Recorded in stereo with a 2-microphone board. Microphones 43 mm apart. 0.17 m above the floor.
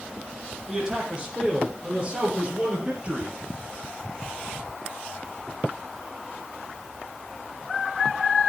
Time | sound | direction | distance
0.7 | a man speaking | 15° right (ahead or behind) | 4.5 m